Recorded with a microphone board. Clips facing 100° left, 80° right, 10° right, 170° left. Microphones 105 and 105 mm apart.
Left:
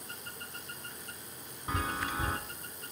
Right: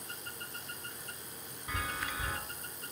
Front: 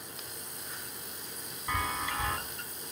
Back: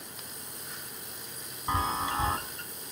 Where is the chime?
135° left, 1.5 m.